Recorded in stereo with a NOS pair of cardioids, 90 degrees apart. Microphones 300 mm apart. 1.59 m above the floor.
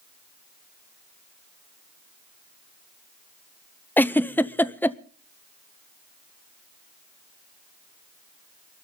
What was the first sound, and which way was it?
A giggle, 5° left.